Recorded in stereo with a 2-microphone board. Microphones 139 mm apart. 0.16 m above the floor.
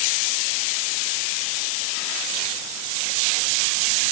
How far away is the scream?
No scream in this recording.